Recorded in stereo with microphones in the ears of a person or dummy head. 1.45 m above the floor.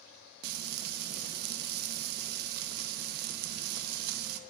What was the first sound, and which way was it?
Frying, 55° right (ahead or behind).